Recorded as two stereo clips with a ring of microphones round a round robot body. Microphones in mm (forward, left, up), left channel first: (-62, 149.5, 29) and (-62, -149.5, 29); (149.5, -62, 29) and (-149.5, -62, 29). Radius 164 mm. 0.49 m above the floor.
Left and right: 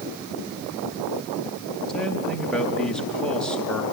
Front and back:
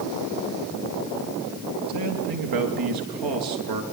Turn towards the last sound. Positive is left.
turn(degrees=175)